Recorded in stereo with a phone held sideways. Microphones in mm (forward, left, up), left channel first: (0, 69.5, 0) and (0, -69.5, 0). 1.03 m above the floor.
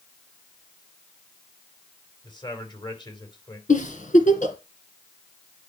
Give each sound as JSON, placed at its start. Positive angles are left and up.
{"t": 2.2, "sound": "a man speaking", "side_deg": 30, "distance_m": 3.5}
{"t": 3.7, "sound": "a giggle", "side_deg": 65, "distance_m": 2.5}